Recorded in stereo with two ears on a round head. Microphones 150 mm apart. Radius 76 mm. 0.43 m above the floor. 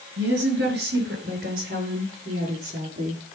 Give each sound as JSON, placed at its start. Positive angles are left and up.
{"t": 0.2, "sound": "a woman speaking", "side_deg": -70, "distance_m": 6.0}